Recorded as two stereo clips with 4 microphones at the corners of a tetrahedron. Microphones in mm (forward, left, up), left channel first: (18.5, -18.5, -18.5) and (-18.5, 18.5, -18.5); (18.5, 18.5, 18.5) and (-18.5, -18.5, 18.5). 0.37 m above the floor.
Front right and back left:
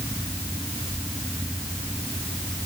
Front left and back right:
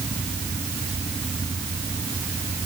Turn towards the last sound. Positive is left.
No sound to turn to.